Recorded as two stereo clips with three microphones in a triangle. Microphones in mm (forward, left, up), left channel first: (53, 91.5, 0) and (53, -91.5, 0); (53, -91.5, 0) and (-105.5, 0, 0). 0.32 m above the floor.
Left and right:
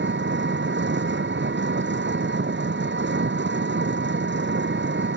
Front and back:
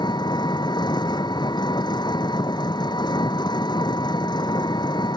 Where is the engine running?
95° right.